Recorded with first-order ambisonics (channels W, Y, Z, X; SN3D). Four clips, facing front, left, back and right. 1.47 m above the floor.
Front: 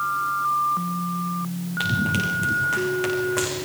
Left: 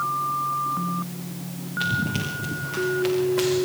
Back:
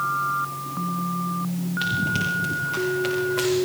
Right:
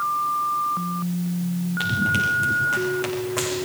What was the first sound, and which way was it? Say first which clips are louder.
Running footsteps: right 4 dB, front 1 dB; 30° right.